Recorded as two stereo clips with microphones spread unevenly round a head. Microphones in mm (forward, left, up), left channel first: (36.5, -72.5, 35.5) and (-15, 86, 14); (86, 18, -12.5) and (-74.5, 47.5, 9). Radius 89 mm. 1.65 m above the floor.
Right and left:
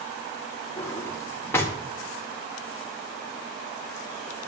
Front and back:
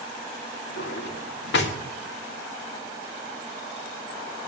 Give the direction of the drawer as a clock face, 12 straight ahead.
12 o'clock.